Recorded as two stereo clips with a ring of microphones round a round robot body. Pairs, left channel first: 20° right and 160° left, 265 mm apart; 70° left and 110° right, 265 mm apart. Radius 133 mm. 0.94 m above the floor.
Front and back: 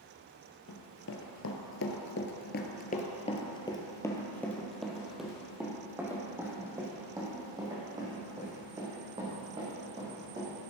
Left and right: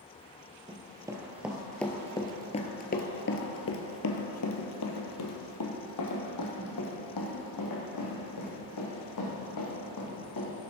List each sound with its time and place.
0.7 s running footsteps: 45° right, 1.4 m; by 10.5 s 85° left, 4.5 m